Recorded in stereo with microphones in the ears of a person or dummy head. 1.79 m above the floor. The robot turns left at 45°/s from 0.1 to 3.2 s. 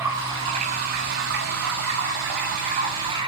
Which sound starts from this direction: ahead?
Running water, at 0.0 s.